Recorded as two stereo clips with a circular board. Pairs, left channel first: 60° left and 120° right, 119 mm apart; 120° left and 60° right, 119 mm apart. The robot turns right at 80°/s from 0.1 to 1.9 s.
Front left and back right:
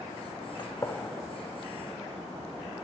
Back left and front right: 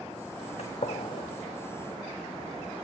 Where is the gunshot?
105° left, 0.8 m; by 1.3 s 160° left, 0.8 m.